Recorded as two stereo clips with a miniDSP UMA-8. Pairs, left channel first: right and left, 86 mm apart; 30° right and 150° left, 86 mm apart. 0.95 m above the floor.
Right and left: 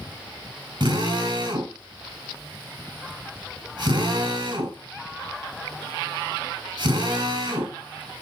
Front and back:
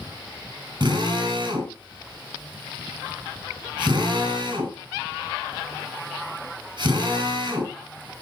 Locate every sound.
0.8 s a drill: 115° left, 4 m